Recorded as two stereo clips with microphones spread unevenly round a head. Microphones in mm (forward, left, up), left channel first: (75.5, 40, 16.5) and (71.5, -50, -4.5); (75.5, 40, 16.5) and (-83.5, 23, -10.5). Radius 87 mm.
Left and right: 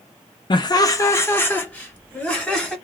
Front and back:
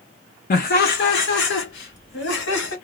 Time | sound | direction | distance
0.5 | laughter | 45° left | 0.5 m